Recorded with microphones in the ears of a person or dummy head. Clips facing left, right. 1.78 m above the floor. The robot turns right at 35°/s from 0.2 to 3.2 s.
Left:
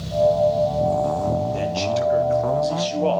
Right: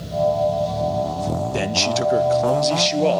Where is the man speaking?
75° right, 0.7 m; by 3.2 s 20° right, 0.7 m.